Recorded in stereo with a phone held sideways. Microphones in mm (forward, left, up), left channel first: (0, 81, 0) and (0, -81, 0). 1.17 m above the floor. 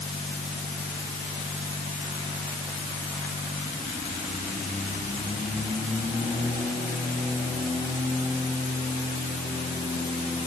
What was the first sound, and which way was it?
Only background noise.